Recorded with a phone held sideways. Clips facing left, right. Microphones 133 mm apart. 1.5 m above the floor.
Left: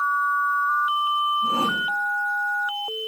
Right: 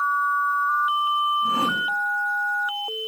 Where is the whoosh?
30° left (ahead or behind), 3.5 m.